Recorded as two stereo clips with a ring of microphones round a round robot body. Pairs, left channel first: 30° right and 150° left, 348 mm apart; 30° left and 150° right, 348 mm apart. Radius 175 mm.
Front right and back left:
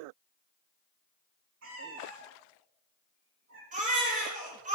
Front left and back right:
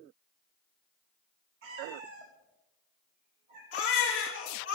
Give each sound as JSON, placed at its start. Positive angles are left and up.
{"t": 1.6, "sound": "a cat meowing", "azimuth_deg": -155, "distance_m": 3.5}
{"t": 3.7, "sound": "a baby crying", "azimuth_deg": 80, "distance_m": 6.0}